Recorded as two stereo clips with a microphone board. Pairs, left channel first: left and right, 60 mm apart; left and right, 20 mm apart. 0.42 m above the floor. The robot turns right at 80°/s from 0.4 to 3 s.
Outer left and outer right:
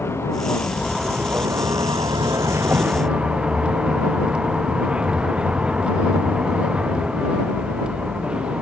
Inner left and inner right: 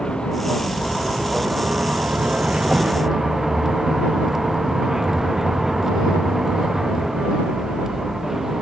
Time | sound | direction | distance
0.0 | a vehicle | 135° left | ?